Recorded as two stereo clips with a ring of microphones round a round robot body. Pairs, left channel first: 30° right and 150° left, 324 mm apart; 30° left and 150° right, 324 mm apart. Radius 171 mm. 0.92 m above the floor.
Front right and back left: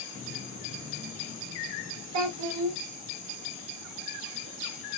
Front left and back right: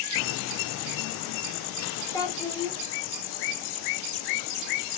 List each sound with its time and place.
2.1 s a child speaking: 110° left, 1.6 m